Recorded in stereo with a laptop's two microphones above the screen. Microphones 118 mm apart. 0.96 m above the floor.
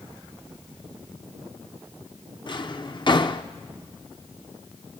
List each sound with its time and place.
2.5 s a drawer: 40° left (ahead or behind), 0.6 m